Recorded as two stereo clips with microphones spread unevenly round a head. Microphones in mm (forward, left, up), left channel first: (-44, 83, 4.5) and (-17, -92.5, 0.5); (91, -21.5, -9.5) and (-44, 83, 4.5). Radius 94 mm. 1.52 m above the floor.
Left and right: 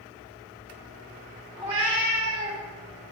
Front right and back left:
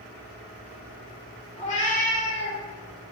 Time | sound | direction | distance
1.6 | a cat meowing | 35° right | 1.3 m